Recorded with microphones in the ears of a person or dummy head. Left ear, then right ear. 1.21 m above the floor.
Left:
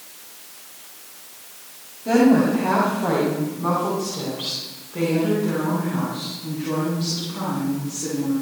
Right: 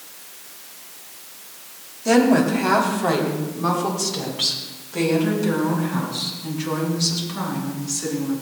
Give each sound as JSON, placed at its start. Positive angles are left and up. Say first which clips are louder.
{"t": 2.0, "sound": "a woman speaking", "louder": "even", "side_deg": -80, "distance_m": 3.0}